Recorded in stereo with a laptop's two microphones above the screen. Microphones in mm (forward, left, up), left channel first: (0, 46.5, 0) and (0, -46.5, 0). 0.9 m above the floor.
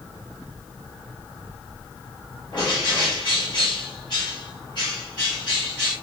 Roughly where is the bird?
Left.